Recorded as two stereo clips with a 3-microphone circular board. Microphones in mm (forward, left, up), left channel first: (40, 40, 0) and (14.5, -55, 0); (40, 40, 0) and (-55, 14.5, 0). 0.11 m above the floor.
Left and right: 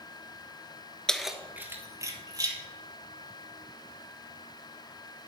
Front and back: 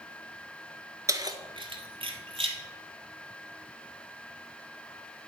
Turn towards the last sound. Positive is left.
turn(degrees=-150)